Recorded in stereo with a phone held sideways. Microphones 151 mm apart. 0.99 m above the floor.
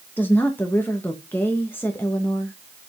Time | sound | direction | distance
0.2 | a woman speaking | 15° left (ahead or behind) | 1.1 m